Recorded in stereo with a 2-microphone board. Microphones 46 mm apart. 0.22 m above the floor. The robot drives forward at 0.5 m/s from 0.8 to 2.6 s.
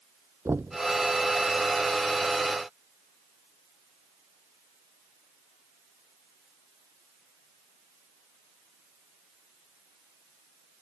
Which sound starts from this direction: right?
Knocking, at 0.5 s.